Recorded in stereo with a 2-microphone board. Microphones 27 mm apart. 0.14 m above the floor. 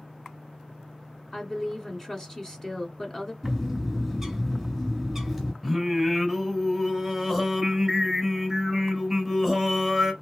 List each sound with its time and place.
1.3 s a woman speaking: 20° left (ahead or behind), 1.5 m
3.4 s a bird: centre (ahead or behind), 1.6 m
5.6 s singing: centre (ahead or behind), 1.8 m